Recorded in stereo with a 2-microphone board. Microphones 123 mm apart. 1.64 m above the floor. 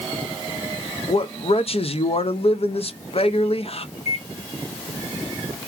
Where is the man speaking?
55° left (ahead or behind), 0.7 m.